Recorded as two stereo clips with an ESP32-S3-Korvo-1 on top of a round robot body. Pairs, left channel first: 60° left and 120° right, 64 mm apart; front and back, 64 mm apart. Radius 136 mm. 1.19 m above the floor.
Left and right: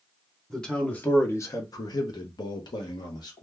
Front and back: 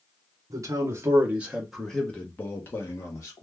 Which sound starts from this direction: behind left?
A man speaking, at 0.5 s.